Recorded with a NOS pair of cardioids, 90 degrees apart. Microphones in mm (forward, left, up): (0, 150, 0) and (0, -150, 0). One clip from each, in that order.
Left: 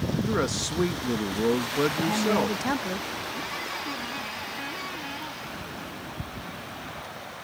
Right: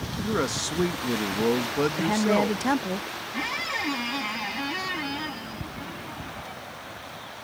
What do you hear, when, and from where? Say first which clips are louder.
0.2 s a man speaking: right 2 dB; straight ahead
2.0 s a woman speaking: right 1 dB; 20° right
3.3 s a squeak: right 4 dB; 50° right